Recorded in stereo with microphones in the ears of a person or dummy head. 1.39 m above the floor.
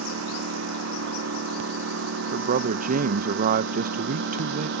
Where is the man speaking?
45° right (ahead or behind).